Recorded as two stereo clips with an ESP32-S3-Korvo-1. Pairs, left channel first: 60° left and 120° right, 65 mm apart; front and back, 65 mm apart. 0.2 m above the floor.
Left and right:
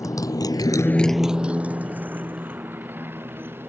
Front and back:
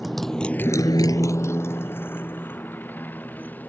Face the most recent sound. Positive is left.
turn(degrees=-65)